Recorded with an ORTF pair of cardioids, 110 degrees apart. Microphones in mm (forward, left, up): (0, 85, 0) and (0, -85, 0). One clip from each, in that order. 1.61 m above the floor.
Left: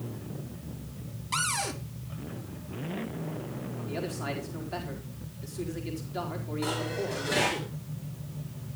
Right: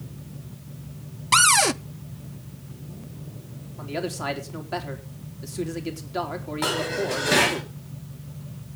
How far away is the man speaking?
About 4 m.